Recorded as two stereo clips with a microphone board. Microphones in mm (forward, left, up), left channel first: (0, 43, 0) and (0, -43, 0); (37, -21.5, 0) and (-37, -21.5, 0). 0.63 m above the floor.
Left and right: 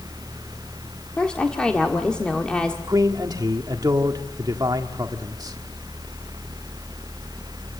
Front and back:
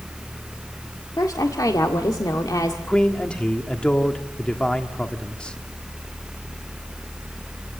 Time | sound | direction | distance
1.2 | a woman speaking | 15° left | 1.7 m
2.9 | a man speaking | 70° right | 1.5 m